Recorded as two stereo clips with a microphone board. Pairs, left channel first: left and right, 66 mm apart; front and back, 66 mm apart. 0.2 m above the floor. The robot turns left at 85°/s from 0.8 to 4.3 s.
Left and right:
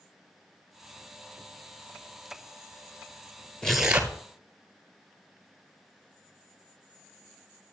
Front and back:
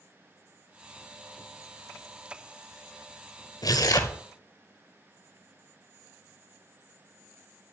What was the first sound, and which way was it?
Tearing paper, 10° left.